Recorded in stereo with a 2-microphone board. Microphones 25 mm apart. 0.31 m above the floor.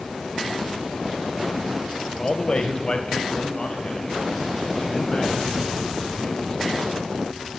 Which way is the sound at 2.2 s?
25° left (ahead or behind).